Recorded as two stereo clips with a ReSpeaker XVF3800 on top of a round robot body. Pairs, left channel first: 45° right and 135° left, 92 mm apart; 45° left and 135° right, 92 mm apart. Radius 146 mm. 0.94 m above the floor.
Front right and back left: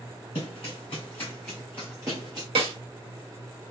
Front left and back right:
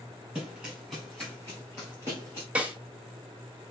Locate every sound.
0.3 s running footsteps: 65° right, 1.0 m; by 2.5 s 90° left, 1.1 m
2.5 s a snare drum: 150° left, 1.2 m